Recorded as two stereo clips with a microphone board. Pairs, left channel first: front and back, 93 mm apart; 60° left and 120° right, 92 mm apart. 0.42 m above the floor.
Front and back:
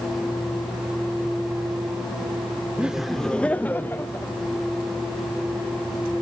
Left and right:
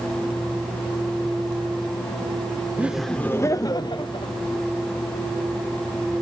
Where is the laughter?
130° right, 0.7 m; by 4.3 s 60° left, 1.5 m.